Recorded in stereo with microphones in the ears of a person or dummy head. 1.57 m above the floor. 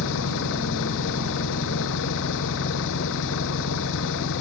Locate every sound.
0.0 s an engine running: 65° left (ahead or behind)